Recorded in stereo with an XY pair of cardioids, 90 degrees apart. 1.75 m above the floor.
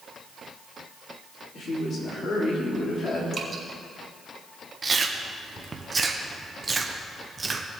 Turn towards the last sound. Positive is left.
turn(degrees=-30)